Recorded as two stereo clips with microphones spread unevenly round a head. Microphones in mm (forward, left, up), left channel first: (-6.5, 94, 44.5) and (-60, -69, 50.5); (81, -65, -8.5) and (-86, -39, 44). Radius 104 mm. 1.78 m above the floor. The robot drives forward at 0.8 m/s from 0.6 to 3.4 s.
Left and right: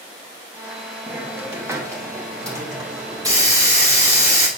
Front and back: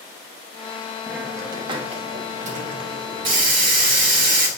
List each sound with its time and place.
1.1 s a hiss: 170° right, 1.1 m; by 4.5 s straight behind, 2.5 m